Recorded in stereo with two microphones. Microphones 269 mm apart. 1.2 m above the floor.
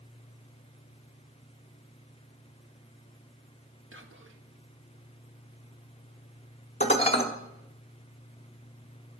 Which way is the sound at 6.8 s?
25° left (ahead or behind).